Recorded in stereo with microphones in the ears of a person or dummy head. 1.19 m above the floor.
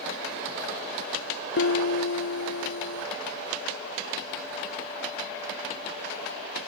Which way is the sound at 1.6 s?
65° left (ahead or behind).